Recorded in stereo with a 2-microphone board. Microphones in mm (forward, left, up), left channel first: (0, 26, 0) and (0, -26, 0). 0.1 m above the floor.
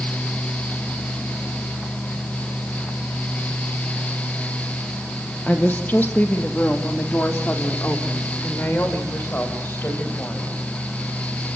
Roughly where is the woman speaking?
Left.